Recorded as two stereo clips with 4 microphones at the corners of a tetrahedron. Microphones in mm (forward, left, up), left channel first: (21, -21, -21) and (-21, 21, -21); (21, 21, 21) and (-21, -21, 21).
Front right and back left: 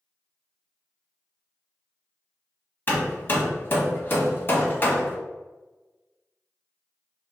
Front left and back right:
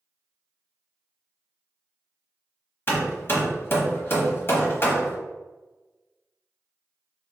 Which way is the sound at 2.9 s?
Straight ahead.